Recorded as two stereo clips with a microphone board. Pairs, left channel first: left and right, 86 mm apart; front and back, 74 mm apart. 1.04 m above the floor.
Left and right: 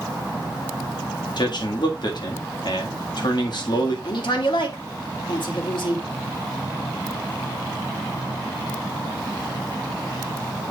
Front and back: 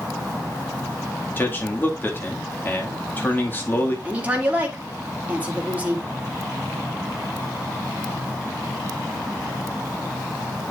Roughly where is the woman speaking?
Left.